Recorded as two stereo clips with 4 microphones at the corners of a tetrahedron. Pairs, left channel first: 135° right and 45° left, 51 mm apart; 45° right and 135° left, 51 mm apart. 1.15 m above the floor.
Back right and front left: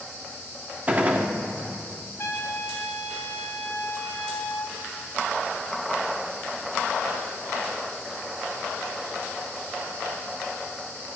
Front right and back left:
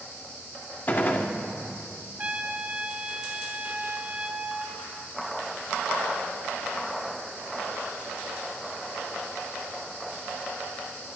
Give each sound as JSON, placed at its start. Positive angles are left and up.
{"t": 0.9, "sound": "a gunshot", "azimuth_deg": -5, "distance_m": 0.9}
{"t": 2.2, "sound": "a trumpet", "azimuth_deg": -170, "distance_m": 1.1}